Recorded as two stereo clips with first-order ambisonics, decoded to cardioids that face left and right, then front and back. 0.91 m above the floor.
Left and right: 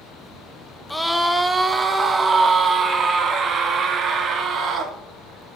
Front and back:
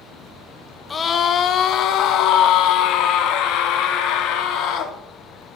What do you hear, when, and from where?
0.9 s a scream: 20° left, 0.7 m; by 5.0 s 30° right, 2.5 m